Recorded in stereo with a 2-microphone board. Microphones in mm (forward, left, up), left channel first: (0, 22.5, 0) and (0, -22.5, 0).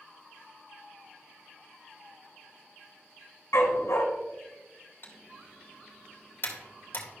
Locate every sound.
3.5 s a dog barking: 80° left, 1.1 m
5.0 s typing on a keyboard: 55° left (ahead or behind), 2 m